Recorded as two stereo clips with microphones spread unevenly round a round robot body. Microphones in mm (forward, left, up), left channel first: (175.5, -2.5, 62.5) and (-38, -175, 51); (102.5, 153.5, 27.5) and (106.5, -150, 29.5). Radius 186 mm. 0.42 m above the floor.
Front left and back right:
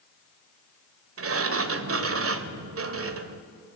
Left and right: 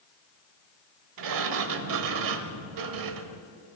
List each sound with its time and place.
1.2 s a sliding door: 105° right, 1.1 m